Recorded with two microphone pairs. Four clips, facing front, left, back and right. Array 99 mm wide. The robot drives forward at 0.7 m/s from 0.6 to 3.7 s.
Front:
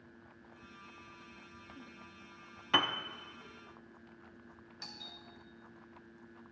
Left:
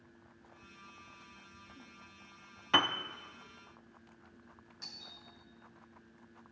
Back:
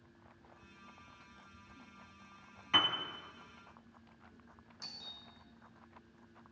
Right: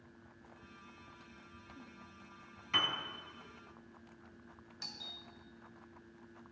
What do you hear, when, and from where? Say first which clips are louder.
2.7 s a piano: left 7 dB, front 2 dB; 65° left, 0.6 m; by 3.0 s 90° left, 0.5 m
4.8 s a doorbell: right 3 dB, front 4 dB; 45° right, 2.5 m